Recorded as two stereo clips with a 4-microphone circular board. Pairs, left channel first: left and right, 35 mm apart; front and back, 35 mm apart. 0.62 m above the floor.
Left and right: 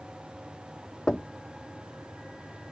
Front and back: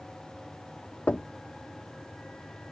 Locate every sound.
1.1 s knocking: 30° left